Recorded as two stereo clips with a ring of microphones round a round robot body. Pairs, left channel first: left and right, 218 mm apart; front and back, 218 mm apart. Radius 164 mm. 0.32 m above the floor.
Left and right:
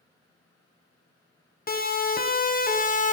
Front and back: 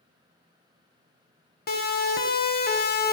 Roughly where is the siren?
Ahead left.